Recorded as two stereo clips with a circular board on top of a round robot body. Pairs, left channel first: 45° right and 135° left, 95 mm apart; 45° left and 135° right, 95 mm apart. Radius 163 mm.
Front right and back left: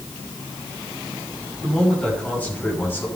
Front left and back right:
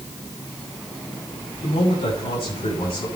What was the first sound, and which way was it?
A man speaking, 35° left.